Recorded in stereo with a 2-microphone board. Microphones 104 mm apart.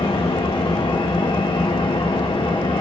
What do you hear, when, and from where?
0.0 s an engine running: 50° left (ahead or behind), 1.5 m